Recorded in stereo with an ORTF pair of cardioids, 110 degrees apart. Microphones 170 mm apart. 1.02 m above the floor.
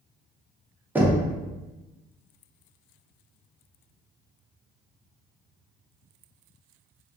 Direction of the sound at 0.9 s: 10° right.